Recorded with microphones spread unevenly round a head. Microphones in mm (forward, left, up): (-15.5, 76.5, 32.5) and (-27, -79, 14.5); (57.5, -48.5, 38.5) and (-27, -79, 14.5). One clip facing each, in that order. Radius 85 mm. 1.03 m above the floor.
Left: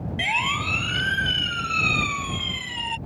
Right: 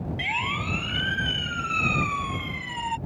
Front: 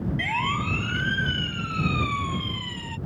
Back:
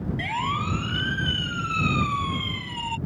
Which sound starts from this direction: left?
A siren, at 0.2 s.